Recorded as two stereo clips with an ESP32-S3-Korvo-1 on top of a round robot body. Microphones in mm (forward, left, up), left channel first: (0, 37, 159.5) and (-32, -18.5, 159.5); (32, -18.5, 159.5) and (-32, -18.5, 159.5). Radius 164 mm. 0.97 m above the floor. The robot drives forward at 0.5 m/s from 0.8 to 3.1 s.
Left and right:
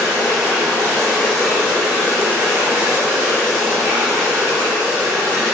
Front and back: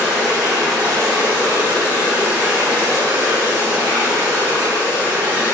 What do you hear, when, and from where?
0.0 s running water: 150° right, 0.9 m; by 5.5 s 170° right, 1.8 m